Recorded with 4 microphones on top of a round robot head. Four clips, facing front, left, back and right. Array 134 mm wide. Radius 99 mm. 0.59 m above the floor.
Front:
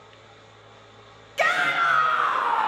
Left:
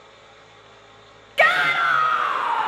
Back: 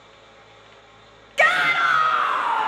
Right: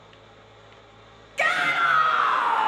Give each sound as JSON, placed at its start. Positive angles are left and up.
{"t": 1.4, "sound": "a shout", "azimuth_deg": 115, "distance_m": 0.8}